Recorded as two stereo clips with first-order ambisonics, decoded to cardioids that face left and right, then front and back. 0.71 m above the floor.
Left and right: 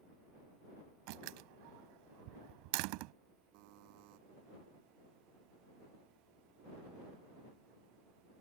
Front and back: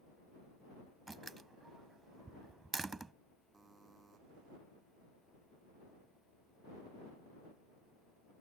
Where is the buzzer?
100° right.